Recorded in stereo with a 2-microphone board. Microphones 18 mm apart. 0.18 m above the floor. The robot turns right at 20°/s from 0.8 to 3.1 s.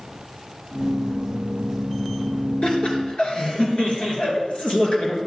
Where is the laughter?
60° left (ahead or behind), 2.5 m; by 5.2 s 65° left (ahead or behind), 2.5 m.